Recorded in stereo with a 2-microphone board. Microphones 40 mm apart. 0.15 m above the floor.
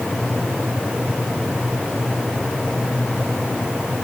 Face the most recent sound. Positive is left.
No sound to turn to.